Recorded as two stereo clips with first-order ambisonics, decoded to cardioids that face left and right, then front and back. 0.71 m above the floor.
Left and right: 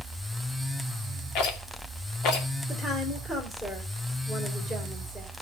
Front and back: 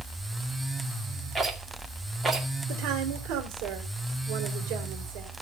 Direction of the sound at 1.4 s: 110° left.